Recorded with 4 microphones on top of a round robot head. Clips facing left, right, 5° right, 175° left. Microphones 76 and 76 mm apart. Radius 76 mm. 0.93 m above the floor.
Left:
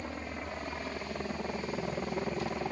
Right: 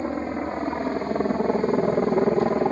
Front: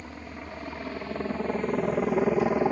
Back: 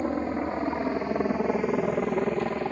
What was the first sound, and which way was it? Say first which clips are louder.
A helicopter: right 13 dB, back 13 dB; 140° right.